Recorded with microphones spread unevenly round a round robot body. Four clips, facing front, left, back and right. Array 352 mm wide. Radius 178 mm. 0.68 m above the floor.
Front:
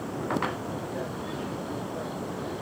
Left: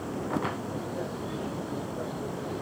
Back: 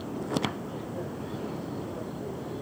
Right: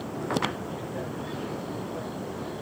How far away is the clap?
I don't hear a clap.